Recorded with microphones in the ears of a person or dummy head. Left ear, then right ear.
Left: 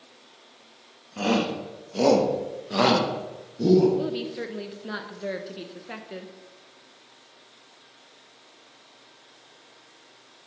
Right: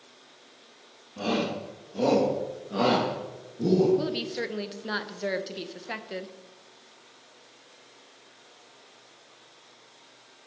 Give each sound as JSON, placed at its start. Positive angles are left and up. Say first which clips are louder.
{"t": 1.2, "sound": "a shout", "louder": "left 3 dB", "side_deg": 55, "distance_m": 2.5}
{"t": 4.0, "sound": "a woman speaking", "louder": "even", "side_deg": -20, "distance_m": 1.0}